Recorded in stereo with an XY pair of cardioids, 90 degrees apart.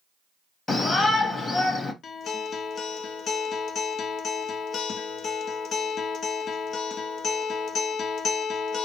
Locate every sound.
0.7 s a shout: 40° left, 1.4 m
2.0 s a guitar: 70° left, 0.5 m